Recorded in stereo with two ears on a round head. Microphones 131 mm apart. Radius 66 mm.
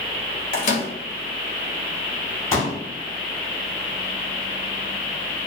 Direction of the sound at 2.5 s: 20° left (ahead or behind).